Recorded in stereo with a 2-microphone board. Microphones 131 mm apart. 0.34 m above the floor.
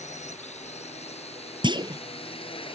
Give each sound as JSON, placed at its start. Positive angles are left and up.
{"t": 0.0, "sound": "a drone", "side_deg": 60}
{"t": 1.6, "sound": "a clunk", "side_deg": -35}